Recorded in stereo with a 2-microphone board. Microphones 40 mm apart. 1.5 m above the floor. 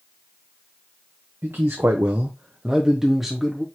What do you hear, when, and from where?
1.4 s a man speaking: 75° right (ahead or behind), 0.6 m; by 3.6 s centre (ahead or behind), 1.0 m